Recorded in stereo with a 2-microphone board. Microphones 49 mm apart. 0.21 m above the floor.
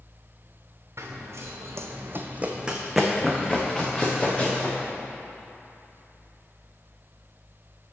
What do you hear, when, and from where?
1.0 s running footsteps: 75° right (ahead or behind), 1.2 m; by 4.8 s 25° left (ahead or behind), 2.5 m